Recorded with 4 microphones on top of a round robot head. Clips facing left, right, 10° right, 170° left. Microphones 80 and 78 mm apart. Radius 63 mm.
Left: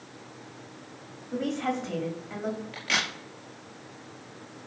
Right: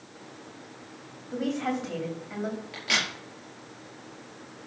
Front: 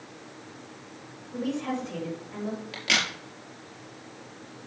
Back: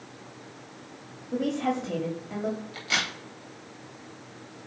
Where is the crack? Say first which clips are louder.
Even, front 2 dB; 5° right, 4 m.